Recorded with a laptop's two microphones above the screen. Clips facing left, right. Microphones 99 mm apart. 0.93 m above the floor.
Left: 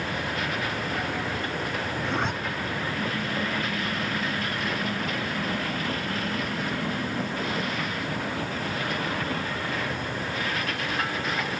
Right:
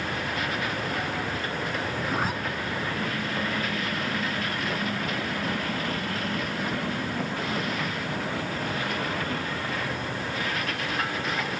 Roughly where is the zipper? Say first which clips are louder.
Left 1 dB; centre.